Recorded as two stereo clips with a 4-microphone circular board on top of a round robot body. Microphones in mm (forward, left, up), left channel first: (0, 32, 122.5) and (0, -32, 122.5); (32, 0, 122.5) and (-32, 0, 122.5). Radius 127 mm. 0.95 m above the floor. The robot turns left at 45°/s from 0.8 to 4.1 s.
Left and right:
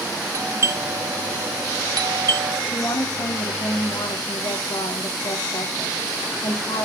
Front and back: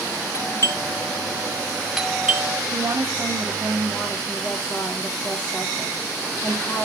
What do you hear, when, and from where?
0.3 s a doorbell: 45° right, 2.5 m; by 2.6 s 125° right, 2.5 m
2.7 s a woman speaking: 135° left, 2.5 m; by 6.8 s 70° left, 2.5 m